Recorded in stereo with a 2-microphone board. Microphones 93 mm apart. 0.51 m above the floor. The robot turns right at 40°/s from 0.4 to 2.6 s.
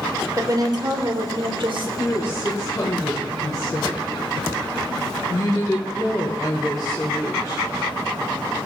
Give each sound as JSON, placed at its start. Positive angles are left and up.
{"t": 0.4, "sound": "a woman speaking", "azimuth_deg": -135, "distance_m": 1.3}
{"t": 2.0, "sound": "a woman speaking", "side_deg": 20, "distance_m": 1.4}